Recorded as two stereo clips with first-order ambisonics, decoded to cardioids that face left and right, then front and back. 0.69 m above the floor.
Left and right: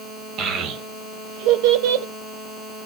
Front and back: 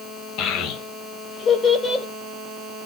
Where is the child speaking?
40° right, 2.0 m; by 2.0 s 80° right, 1.7 m.